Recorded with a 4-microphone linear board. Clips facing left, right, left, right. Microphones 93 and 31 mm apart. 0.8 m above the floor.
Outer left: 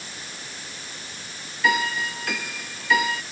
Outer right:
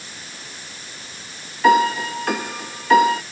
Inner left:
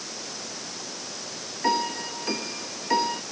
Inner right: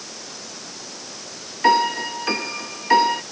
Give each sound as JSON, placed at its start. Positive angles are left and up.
{"t": 1.6, "sound": "a piano", "side_deg": -45}